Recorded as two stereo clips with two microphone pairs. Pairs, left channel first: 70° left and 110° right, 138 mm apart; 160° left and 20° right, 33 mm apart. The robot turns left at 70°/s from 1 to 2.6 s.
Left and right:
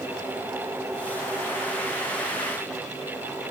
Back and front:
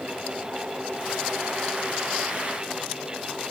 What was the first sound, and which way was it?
Only background noise.